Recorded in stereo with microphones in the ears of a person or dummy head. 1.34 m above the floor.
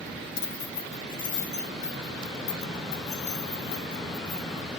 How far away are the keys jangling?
About 1.0 m.